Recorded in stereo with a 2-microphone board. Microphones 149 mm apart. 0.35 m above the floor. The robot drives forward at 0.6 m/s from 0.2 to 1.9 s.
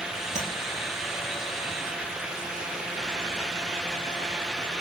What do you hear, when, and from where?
0.3 s tapping: 60° right (ahead or behind), 4.5 m